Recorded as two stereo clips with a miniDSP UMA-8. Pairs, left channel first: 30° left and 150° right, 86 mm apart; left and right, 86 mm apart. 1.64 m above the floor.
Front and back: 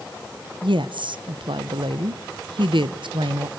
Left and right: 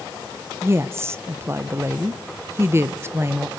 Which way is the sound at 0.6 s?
150° right.